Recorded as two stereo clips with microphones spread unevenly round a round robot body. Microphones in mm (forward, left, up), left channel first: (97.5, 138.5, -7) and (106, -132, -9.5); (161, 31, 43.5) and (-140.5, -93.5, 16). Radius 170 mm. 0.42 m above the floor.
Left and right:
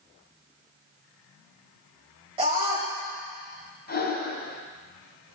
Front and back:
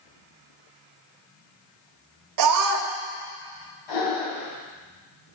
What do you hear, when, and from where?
2.4 s a scream: 160° right, 1.5 m
3.9 s breathing: 35° left, 3 m